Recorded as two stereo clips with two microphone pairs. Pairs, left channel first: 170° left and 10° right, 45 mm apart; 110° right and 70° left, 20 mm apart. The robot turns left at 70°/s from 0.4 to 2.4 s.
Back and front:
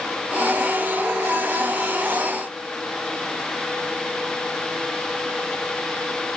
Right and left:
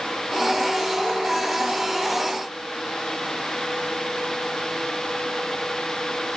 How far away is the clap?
No clap in this recording.